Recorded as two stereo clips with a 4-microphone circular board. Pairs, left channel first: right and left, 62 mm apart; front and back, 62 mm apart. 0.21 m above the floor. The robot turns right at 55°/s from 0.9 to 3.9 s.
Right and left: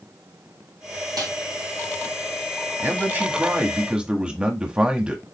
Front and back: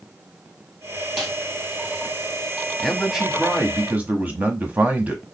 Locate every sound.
1.2 s a snare drum: 95° left, 2 m; by 1.3 s 100° left, 2 m
2.8 s a man speaking: 85° left, 1.2 m; by 5.2 s 145° left, 1.2 m